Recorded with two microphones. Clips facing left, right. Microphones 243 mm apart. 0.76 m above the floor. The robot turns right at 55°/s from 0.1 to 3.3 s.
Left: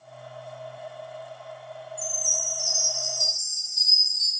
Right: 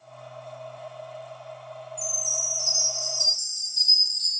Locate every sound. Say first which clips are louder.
2.0 s a chime: even; 85° right, 0.7 m; by 4.3 s 15° right, 0.7 m